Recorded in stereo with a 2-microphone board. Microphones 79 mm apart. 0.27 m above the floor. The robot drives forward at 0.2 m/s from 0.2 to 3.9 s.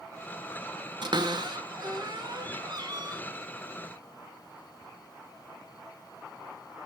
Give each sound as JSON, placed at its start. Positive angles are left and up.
{"t": 1.0, "sound": "a cupboard door", "side_deg": -75, "distance_m": 1.0}